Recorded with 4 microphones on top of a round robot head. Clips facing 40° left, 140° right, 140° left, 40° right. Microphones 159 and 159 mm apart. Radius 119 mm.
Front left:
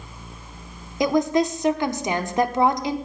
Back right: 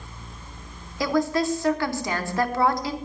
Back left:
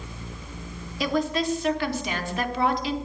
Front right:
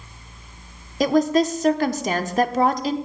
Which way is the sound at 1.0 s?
25° right.